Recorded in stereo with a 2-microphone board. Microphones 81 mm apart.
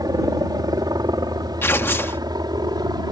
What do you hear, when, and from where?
0.0 s a helicopter: 50° right (ahead or behind); by 3.1 s 55° right (ahead or behind)
1.6 s tearing paper: 30° left (ahead or behind)